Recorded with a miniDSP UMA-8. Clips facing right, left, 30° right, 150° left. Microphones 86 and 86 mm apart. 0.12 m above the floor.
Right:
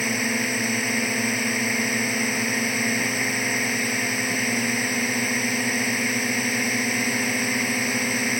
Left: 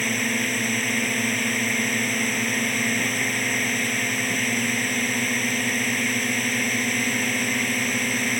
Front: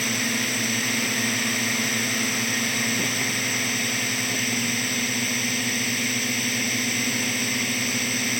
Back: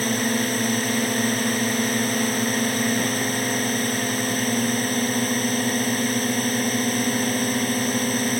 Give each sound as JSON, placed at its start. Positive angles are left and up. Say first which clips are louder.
{"t": 0.0, "sound": "a drone", "louder": "even, back 5 dB", "azimuth_deg": -170}